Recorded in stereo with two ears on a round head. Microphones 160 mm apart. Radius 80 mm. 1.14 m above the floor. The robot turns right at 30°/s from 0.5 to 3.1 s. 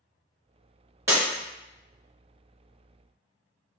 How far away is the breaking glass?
About 1.1 m.